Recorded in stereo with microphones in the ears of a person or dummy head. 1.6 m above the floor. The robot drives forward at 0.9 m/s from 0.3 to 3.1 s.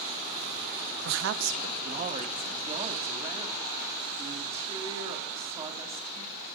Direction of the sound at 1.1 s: 70° right (ahead or behind).